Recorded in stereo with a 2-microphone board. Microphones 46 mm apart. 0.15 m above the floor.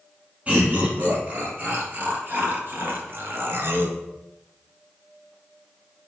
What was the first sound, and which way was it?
Laughter, 30° right (ahead or behind).